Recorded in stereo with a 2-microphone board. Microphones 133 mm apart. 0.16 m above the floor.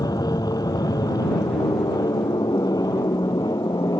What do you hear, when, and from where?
0.0 s an aircraft: 30° left (ahead or behind)